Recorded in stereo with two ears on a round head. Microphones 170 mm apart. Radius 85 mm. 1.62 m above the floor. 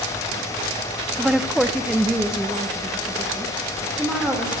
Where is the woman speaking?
Centre (ahead or behind), 0.5 m.